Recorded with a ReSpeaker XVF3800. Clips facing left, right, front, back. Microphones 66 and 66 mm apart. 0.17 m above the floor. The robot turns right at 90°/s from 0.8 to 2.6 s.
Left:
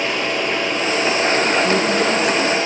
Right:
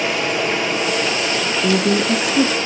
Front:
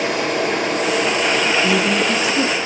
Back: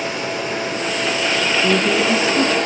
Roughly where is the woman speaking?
Behind right.